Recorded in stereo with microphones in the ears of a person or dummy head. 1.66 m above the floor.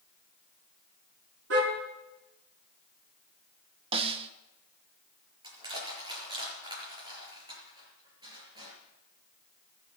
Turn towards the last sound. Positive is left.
turn(degrees=-30)  # may be behind; listen again after turning